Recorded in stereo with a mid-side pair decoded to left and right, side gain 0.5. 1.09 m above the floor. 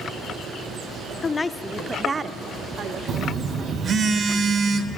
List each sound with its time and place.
1.2 s a woman speaking: 35° left, 0.6 m; by 4.0 s 70° right, 1.8 m
3.1 s a phone buzzing: 50° right, 1.1 m